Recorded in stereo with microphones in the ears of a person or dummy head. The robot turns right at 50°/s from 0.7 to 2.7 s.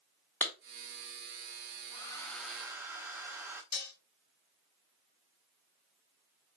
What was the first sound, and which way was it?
A clap, 5° left (ahead or behind).